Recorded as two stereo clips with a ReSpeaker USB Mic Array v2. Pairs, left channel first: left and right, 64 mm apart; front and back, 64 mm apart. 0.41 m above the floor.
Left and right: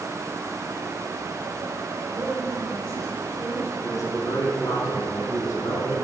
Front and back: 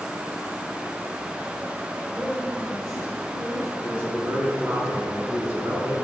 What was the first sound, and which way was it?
A man speaking, 130° right.